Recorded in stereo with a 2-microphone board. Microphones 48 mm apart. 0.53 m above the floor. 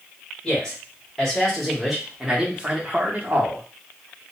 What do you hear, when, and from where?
0.4 s a man speaking: 15° left (ahead or behind), 1.5 m; by 3.6 s 45° right (ahead or behind), 0.9 m